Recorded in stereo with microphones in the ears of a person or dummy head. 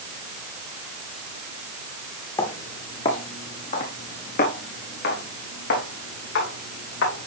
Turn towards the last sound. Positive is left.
turn(degrees=65)  # may be behind; listen again after turning